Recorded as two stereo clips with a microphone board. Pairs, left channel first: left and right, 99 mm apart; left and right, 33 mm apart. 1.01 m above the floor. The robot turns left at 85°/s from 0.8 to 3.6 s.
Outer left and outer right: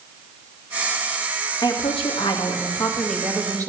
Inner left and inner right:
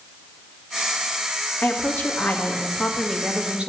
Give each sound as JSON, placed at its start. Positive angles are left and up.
{"t": 1.6, "sound": "a woman speaking", "azimuth_deg": 125, "distance_m": 1.7}